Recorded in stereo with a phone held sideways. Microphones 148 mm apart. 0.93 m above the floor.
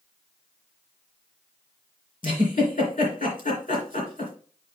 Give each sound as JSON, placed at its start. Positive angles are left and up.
{"t": 2.2, "sound": "a giggle", "side_deg": 65, "distance_m": 3.0}